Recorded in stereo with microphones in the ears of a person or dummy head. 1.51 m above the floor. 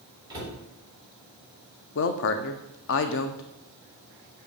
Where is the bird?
No bird in this recording.